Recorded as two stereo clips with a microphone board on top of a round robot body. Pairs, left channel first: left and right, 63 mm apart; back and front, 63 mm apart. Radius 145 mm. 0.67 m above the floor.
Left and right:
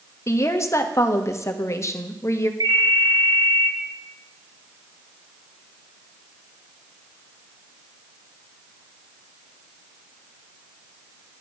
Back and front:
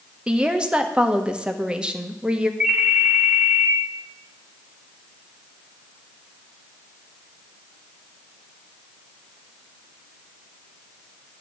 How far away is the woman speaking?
About 1.5 m.